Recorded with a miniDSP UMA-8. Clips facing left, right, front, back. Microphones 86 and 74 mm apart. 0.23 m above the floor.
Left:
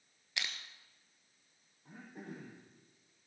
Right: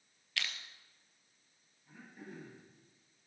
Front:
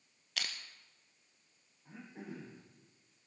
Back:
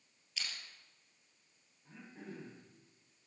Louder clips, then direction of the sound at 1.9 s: Left 3 dB, front 2 dB; 70° left.